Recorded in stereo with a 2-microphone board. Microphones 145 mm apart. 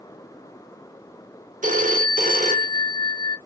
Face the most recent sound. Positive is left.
turn(degrees=-60)  # may be behind; listen again after turning